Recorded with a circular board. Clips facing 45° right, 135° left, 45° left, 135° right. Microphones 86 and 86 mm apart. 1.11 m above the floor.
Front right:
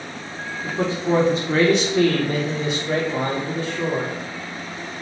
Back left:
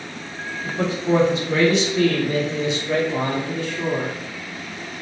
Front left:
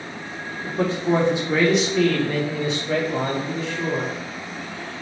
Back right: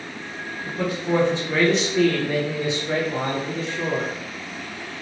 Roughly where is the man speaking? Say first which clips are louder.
Even, front left 4 dB; ahead.